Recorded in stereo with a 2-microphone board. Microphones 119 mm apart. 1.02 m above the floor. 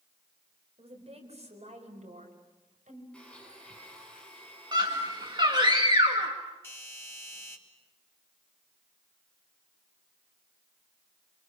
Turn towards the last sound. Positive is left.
turn(degrees=20)  # may be behind; listen again after turning